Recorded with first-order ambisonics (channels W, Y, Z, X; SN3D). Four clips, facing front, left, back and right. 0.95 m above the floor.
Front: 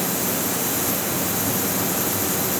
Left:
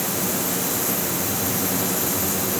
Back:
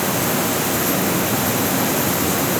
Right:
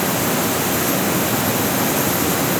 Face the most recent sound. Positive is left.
No sound to turn to.